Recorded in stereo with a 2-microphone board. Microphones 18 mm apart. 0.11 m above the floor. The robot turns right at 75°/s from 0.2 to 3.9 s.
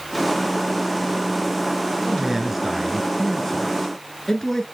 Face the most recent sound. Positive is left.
turn(degrees=20)  # may be behind; listen again after turning